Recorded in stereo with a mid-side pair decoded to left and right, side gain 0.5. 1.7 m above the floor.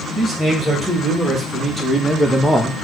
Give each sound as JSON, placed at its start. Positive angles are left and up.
{"t": 0.1, "sound": "a man speaking", "azimuth_deg": -15, "distance_m": 2.0}